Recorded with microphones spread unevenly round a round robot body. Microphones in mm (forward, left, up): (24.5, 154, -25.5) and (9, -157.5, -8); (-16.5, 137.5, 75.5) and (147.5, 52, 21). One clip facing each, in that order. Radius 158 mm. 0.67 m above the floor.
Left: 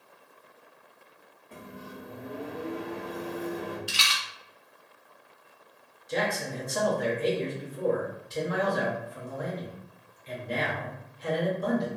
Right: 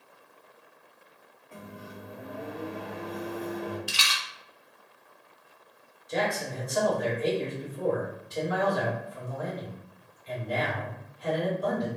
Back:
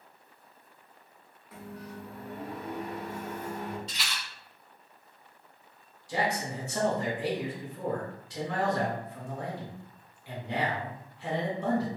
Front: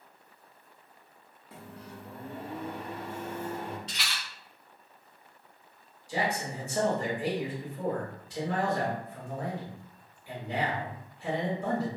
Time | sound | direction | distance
1.5 | a microwave | 20° left | 0.8 m
3.9 | a rattle | 85° right | 0.6 m
6.1 | a man speaking | 135° left | 1.5 m